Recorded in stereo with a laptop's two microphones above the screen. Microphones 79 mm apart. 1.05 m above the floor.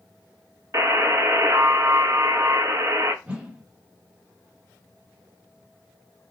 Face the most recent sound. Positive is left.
turn(degrees=-15)  # may be behind; listen again after turning